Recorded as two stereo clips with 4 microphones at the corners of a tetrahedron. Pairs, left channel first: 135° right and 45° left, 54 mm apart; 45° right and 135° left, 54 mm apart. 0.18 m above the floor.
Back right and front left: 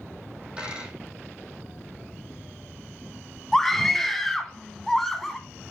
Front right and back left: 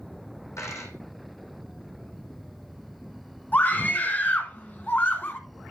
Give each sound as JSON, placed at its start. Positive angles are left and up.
{"t": 0.6, "sound": "a dropped coin", "azimuth_deg": -25, "distance_m": 3.5}
{"t": 3.5, "sound": "a scream", "azimuth_deg": -55, "distance_m": 1.5}